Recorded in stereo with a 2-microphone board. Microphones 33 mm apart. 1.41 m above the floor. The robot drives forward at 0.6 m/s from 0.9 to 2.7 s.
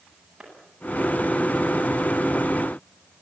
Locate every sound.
0.4 s a clap: 10° right (ahead or behind), 9.5 m